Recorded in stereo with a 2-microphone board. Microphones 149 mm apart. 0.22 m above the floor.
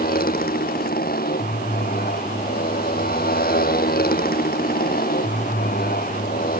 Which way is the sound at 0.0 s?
80° left.